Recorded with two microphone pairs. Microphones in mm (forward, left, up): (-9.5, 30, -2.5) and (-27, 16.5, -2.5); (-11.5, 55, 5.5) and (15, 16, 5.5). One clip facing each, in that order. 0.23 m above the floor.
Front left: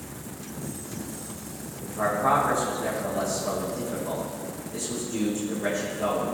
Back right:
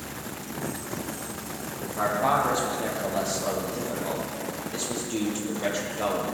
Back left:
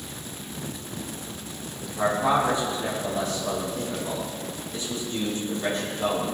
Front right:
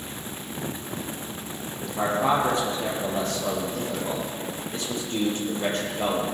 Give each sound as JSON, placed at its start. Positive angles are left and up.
{"t": 1.9, "sound": "a man speaking", "azimuth_deg": -95, "distance_m": 6.0}